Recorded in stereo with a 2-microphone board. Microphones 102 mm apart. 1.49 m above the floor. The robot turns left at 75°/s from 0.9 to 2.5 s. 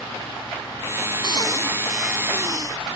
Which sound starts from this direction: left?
Breathing, at 1.2 s.